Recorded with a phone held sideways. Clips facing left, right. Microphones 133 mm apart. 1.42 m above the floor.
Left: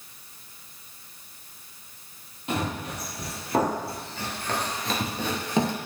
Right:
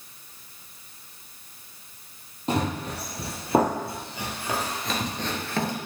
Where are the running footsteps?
40° right (ahead or behind), 3 m; by 5.8 s 25° left (ahead or behind), 1.6 m.